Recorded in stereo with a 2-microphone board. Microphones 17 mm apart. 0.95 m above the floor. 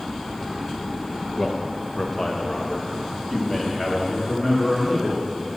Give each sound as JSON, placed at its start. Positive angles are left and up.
{"t": 1.4, "sound": "a man speaking", "side_deg": 35, "distance_m": 0.8}